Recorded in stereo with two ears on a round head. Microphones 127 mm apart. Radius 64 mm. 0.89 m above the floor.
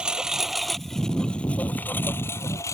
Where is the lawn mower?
5° right (ahead or behind); by 2.8 s 20° left (ahead or behind).